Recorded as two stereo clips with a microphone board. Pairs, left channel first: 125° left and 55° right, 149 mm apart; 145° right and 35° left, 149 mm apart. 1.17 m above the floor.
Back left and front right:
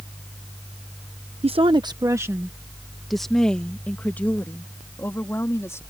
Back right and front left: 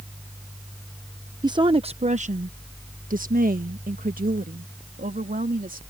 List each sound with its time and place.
1.4 s a woman speaking: 20° right; by 5.8 s 55° left